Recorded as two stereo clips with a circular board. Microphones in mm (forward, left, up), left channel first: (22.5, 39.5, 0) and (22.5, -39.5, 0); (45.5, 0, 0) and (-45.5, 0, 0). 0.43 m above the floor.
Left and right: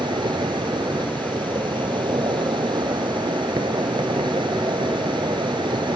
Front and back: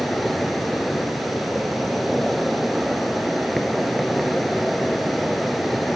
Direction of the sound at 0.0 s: 90° right.